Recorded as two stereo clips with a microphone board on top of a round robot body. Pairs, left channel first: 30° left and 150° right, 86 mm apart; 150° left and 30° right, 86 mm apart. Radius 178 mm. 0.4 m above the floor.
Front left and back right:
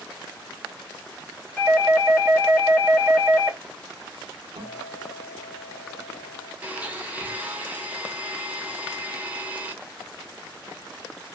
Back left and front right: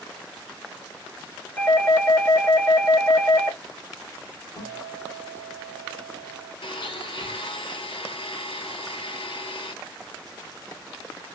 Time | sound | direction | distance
1.6 | a doorbell | 110° left | 1.3 m
4.6 | a guitar | 165° right | 0.8 m
6.6 | a blender | 140° left | 0.7 m